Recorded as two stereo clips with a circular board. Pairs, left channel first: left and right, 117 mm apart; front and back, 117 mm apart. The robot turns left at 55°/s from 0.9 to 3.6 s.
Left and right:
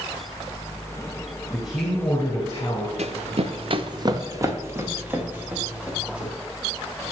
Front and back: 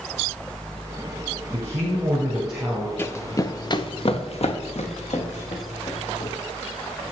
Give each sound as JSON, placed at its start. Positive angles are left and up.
{"t": 1.5, "sound": "a man speaking", "azimuth_deg": 145, "distance_m": 2.5}
{"t": 3.0, "sound": "running footsteps", "azimuth_deg": -70, "distance_m": 0.8}